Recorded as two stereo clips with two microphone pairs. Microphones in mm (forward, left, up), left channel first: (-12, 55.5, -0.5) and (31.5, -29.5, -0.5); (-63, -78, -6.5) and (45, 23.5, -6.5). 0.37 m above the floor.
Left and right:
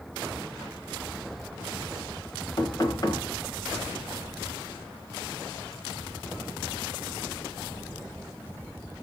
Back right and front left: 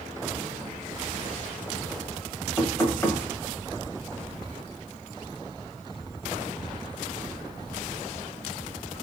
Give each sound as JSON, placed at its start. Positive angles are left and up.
{"t": 2.6, "sound": "knocking", "azimuth_deg": 160, "distance_m": 0.9}